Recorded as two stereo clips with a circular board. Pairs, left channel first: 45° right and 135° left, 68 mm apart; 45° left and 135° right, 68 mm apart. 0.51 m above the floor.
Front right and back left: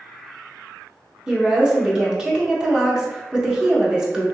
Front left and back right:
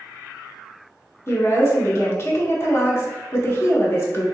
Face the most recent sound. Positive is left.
turn(degrees=65)